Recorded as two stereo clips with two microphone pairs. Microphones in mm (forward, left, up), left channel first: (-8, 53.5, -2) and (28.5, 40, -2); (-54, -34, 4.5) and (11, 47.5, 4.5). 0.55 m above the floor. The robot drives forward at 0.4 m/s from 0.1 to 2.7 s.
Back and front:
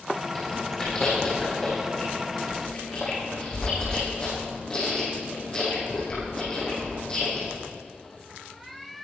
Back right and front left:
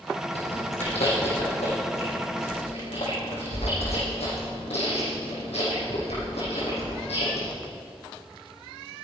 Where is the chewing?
125° right, 6.5 m; by 7.5 s 135° right, 7 m.